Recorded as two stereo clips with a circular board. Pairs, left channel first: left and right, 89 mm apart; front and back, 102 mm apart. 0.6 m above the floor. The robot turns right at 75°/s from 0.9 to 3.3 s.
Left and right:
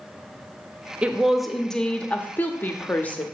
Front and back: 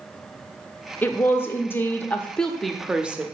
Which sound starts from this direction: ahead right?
A woman speaking, at 1.0 s.